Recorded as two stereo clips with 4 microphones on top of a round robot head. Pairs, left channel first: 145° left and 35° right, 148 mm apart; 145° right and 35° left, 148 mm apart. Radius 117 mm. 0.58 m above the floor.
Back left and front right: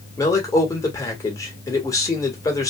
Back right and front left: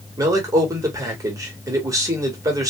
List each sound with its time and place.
0.2 s a man speaking: 90° left, 1.5 m